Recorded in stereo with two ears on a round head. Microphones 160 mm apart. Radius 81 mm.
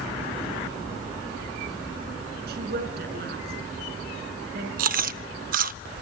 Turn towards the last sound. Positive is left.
turn(degrees=-50)  # may be behind; listen again after turning